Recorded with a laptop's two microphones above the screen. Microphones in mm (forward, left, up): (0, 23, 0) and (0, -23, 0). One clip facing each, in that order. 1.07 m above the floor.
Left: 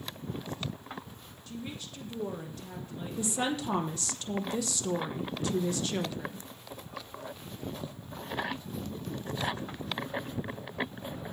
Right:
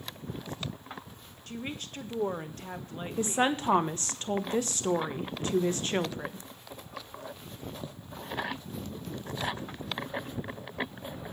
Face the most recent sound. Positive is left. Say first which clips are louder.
# right 4 dB
turn(degrees=-35)  # may be behind; listen again after turning